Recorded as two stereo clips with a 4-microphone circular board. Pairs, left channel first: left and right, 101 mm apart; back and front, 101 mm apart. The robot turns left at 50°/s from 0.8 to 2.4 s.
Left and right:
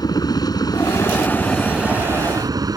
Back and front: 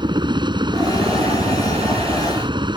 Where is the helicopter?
40° left; by 2.8 s 40° right.